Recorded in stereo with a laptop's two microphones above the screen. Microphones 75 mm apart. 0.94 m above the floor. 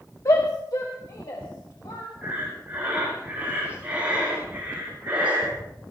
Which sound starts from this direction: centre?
Breathing, at 2.2 s.